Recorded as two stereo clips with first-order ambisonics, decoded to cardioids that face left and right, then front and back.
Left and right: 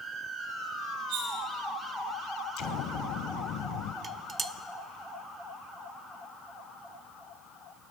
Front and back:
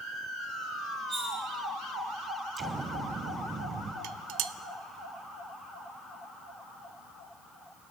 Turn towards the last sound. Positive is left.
turn(degrees=-160)